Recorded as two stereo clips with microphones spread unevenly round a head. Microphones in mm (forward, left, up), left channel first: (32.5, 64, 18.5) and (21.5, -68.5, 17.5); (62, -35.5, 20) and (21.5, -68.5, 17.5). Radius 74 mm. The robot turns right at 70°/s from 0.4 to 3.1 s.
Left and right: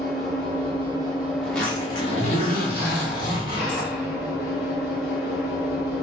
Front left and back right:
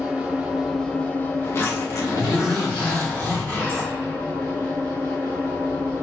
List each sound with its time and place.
0.0 s an engine running: 75° right, 1.6 m; by 6.0 s 115° left, 1.6 m
1.4 s a zipper: 10° right, 2 m; by 3.9 s 105° left, 2 m